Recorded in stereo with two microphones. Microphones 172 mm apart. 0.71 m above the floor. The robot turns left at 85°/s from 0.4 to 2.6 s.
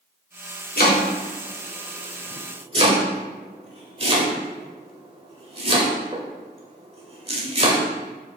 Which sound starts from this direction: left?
Chopping, at 0.8 s.